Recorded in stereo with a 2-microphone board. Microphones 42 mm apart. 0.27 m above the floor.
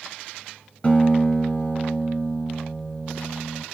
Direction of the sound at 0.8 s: 25° left (ahead or behind).